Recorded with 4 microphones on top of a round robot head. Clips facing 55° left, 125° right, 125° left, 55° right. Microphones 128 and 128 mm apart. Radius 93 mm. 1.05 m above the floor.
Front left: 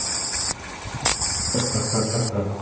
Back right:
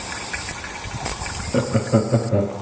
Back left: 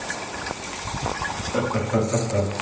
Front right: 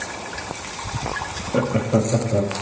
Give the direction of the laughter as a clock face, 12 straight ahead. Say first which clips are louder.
Back right 6 dB, front right 3 dB; 4 o'clock.